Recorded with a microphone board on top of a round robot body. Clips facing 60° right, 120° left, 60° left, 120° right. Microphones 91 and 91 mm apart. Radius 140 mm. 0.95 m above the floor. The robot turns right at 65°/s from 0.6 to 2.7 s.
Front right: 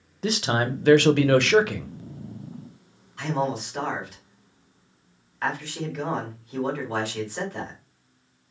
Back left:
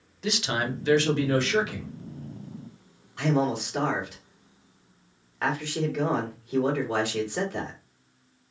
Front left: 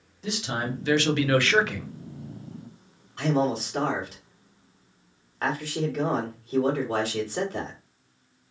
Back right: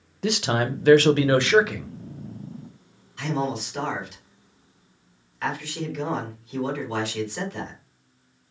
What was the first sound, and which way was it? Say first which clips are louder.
A man speaking: front right 4 dB, back right 6 dB; 105° right.